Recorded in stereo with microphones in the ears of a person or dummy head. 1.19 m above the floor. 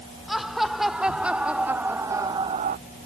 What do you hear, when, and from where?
0.3 s laughter: 5° right (ahead or behind); by 2.8 s 50° right (ahead or behind)